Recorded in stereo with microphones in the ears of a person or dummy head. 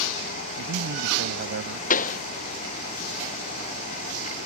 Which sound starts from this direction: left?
A pop, at 1.9 s.